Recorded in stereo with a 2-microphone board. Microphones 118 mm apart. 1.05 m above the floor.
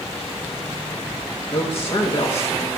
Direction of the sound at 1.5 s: 50° left (ahead or behind).